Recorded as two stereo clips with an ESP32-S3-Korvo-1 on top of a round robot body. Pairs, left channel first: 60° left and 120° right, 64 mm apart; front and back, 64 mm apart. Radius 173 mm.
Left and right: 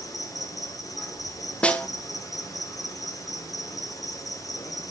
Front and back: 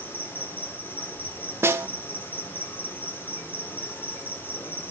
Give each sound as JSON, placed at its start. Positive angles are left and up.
{"t": 0.0, "sound": "an insect", "azimuth_deg": 55, "distance_m": 2.0}
{"t": 1.6, "sound": "a snare drum", "azimuth_deg": 130, "distance_m": 1.2}